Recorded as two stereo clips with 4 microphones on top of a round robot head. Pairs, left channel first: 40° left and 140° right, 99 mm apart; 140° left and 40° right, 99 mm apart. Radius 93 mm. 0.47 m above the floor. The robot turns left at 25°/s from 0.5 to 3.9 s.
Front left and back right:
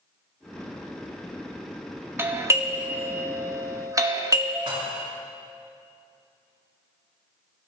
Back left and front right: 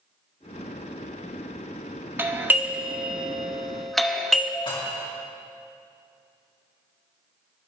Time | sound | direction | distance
2.2 | a doorbell | 95° right | 1.3 m
4.7 | dishes clattering | straight behind | 3.5 m